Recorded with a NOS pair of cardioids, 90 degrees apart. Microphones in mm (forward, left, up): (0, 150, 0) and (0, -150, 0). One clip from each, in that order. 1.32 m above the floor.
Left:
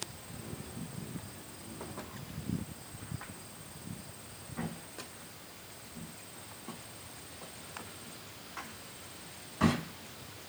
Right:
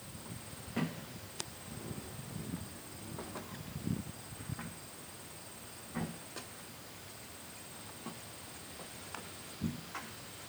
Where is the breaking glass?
No breaking glass in this recording.